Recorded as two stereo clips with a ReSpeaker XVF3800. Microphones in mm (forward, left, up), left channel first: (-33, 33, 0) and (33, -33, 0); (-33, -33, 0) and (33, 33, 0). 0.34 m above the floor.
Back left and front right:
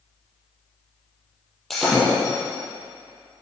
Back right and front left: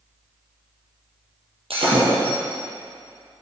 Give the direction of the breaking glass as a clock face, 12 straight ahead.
10 o'clock.